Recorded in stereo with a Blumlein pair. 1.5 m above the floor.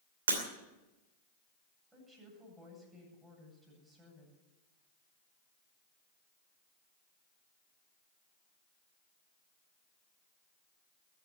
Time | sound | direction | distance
0.3 | breaking glass | 70° right | 2.5 m
1.9 | a woman speaking | 10° right | 8.5 m